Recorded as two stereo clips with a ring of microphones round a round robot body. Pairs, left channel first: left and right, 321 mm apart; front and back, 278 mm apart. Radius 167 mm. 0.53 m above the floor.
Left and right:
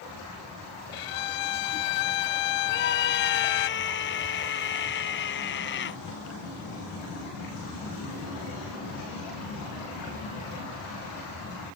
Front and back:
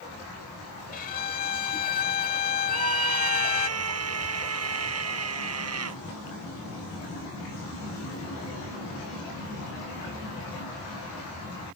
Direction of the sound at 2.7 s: 145° left.